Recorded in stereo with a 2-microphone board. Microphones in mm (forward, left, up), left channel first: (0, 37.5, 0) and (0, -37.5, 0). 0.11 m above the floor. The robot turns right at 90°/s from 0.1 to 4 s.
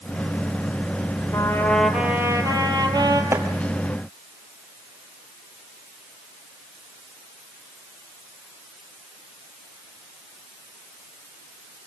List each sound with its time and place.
1.3 s a trumpet: 135° left, 2.5 m; by 3.2 s 55° right, 2.5 m
3.3 s chopping: 35° right (ahead or behind), 2.0 m; by 3.5 s 20° right (ahead or behind), 2.0 m